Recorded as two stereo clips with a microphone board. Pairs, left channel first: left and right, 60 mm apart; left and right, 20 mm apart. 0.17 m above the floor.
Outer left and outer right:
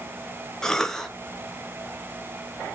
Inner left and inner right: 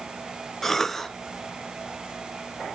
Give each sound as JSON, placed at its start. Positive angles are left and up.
{"t": 0.6, "sound": "a cough", "side_deg": 10, "distance_m": 1.0}